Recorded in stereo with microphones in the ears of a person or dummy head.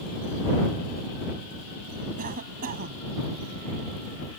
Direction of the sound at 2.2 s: 55° right (ahead or behind).